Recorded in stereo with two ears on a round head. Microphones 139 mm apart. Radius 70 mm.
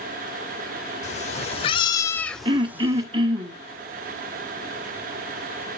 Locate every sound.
1.0 s a cat meowing: 45° left (ahead or behind), 0.9 m; by 3.1 s 20° right (ahead or behind), 0.8 m
2.5 s throat clearing: 30° right (ahead or behind), 0.9 m